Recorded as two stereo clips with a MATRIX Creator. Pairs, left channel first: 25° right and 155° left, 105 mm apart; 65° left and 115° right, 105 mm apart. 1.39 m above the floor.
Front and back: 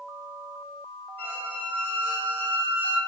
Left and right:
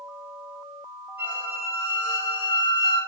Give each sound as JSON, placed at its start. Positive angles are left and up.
{"t": 1.2, "sound": "a squeak", "azimuth_deg": -55, "distance_m": 1.2}